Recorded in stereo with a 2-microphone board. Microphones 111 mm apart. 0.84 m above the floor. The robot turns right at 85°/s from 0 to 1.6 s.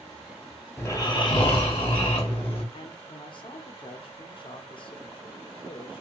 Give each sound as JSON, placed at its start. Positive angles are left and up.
{"t": 0.8, "sound": "snoring", "azimuth_deg": 20, "distance_m": 0.9}
{"t": 2.7, "sound": "a man speaking", "side_deg": 45, "distance_m": 0.6}